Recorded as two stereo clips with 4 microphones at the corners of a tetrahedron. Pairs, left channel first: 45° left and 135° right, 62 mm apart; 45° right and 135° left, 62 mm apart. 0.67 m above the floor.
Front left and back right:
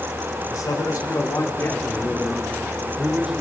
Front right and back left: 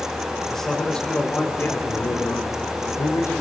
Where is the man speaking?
40° left, 3 m; by 3.3 s 65° right, 3 m.